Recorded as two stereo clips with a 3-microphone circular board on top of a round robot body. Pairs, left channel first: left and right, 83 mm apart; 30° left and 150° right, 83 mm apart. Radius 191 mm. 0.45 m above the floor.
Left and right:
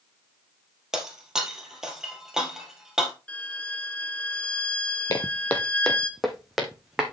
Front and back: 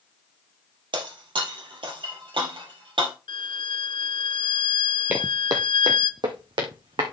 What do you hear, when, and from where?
0.9 s breaking glass: 175° right, 2.5 m
3.3 s a violin: 15° left, 0.7 m
5.1 s footsteps: 140° left, 0.7 m; by 7.1 s 175° right, 2 m